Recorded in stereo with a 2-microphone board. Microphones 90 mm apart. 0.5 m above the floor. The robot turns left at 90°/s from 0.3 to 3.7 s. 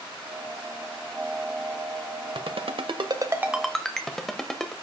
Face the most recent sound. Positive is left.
turn(degrees=5)  # may be behind; listen again after turning